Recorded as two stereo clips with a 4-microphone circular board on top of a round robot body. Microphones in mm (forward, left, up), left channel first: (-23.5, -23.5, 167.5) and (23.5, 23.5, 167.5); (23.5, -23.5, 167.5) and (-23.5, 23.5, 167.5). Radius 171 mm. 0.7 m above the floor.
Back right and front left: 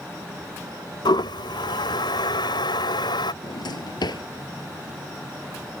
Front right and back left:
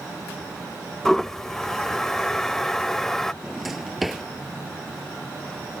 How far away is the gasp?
No gasp in this recording.